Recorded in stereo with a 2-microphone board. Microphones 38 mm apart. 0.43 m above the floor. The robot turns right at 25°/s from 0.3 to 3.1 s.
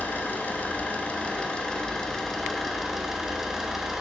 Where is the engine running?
120° left, 1.4 m; by 4.0 s 170° right, 1.4 m.